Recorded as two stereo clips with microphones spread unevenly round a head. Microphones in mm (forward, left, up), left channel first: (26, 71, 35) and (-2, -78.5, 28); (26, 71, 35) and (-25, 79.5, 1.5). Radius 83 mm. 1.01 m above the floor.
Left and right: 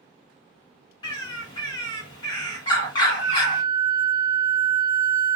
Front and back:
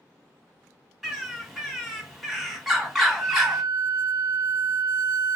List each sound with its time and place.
1.0 s a bird: 35° left, 1.1 m
3.2 s a flute: 115° left, 0.6 m